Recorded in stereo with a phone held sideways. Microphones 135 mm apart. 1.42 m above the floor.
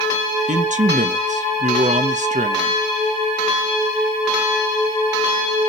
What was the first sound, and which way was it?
A man speaking, 65° right (ahead or behind).